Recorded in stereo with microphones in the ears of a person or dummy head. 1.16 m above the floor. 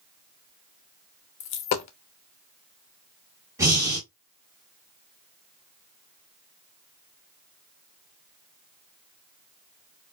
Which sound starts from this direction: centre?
Breathing, at 3.6 s.